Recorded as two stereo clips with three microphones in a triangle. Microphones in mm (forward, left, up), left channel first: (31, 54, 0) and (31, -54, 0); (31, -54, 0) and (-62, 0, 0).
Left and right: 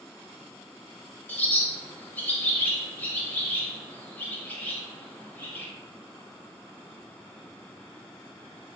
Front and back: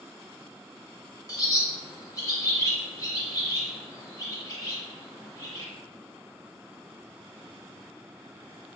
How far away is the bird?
About 0.6 m.